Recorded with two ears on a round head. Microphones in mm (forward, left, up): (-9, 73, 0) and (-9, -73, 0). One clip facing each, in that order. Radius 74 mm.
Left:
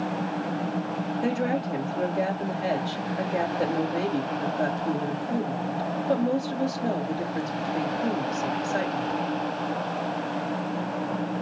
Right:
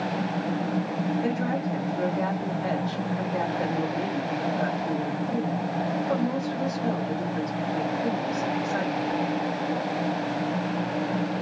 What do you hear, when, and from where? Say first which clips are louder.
1.2 s a woman speaking: left 1 dB; 35° left (ahead or behind), 3.5 m